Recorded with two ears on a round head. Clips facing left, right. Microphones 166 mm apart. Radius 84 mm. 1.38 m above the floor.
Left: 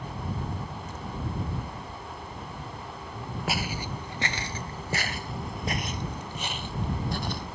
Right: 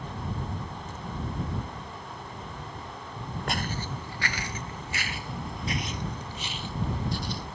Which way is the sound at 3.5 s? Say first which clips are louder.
Left 1 dB; 5° left (ahead or behind).